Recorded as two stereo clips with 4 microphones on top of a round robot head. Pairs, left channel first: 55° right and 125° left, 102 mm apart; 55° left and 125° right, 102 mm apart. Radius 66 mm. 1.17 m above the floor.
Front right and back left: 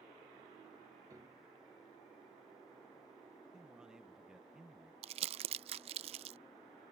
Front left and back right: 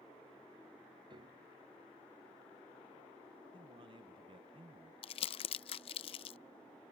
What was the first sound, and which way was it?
A piano, 175° right.